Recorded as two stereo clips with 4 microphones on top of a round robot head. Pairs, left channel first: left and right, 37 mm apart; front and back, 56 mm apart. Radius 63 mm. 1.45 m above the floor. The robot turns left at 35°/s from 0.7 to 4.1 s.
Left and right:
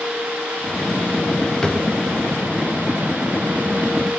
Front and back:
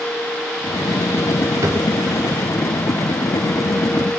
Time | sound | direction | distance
1.6 | a drawer | 155° left | 0.7 m